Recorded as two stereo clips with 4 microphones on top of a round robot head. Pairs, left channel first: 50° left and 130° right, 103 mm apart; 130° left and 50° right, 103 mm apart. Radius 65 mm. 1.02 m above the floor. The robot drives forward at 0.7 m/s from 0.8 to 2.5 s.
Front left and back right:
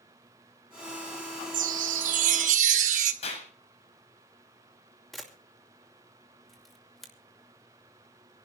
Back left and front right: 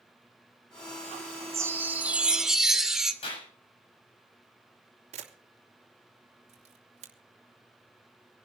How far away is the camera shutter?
About 2.5 m.